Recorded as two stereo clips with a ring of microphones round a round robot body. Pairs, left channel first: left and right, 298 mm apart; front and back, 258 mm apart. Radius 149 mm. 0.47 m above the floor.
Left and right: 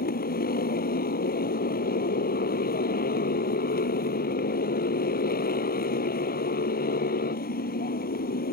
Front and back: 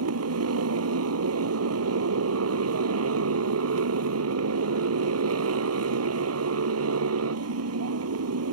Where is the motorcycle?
150° left.